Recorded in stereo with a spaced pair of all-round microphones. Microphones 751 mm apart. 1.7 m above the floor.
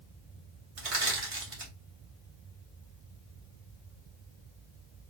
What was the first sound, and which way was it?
Crushing, 45° right (ahead or behind).